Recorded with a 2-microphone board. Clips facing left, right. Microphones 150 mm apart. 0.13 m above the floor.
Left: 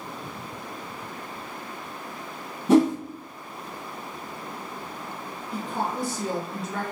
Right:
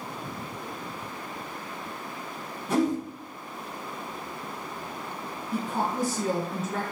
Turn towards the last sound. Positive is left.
turn(degrees=-45)  # may be behind; listen again after turning